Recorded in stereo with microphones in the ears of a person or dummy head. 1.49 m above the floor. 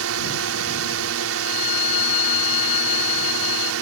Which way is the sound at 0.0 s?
85° right.